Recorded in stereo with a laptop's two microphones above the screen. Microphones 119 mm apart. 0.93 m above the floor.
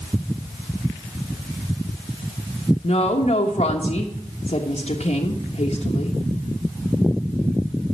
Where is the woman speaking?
60° left (ahead or behind), 1.1 m.